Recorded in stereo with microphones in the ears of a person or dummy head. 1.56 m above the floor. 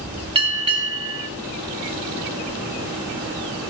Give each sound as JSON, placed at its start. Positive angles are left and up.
{"t": 0.3, "sound": "a bell", "side_deg": -35, "distance_m": 1.1}